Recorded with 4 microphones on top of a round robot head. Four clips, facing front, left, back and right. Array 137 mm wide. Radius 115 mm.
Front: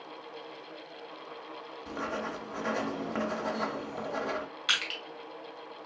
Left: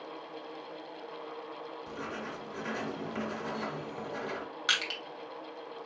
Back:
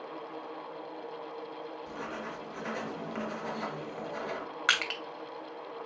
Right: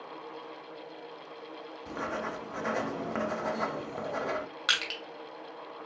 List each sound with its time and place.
1.9 s writing: 55° right, 0.8 m
4.7 s crushing: 160° right, 1.6 m